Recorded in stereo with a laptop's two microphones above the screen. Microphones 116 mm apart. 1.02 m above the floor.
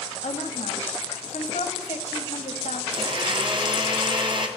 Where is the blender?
45° right (ahead or behind), 1.8 m.